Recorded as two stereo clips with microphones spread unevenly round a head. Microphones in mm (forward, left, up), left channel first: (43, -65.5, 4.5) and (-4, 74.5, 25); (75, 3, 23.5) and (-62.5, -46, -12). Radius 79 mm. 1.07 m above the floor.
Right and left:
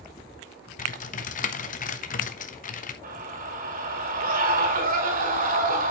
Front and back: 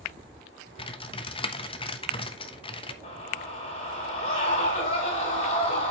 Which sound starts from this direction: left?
A scream, at 3.0 s.